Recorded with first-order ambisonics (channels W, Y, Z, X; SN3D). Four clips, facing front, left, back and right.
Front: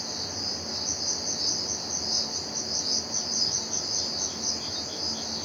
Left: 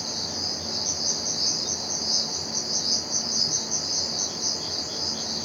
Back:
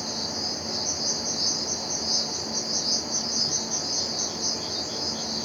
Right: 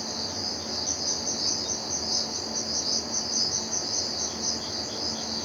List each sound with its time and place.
0.0 s an insect: 110° left, 4.5 m